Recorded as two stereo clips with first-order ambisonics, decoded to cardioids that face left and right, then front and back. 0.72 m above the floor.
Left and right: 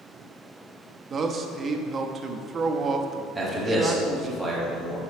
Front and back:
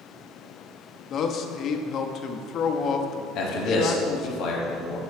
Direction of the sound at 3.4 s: 10° right.